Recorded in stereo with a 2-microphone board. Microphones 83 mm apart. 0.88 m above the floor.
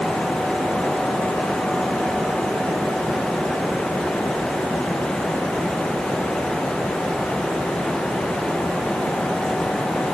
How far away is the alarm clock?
No alarm clock in this recording.